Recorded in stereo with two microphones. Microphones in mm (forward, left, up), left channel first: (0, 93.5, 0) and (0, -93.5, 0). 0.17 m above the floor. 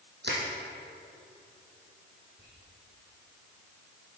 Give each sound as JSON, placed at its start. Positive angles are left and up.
{"t": 0.2, "sound": "crushing", "side_deg": -65, "distance_m": 3.0}
{"t": 2.4, "sound": "whispering", "side_deg": -75, "distance_m": 5.5}